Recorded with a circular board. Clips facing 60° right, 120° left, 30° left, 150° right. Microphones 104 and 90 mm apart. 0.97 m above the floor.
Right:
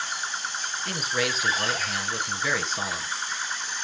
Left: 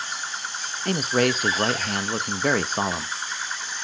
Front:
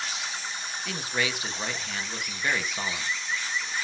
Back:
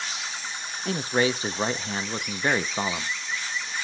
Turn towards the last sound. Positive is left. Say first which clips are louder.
# left 8 dB, back 7 dB
turn(degrees=155)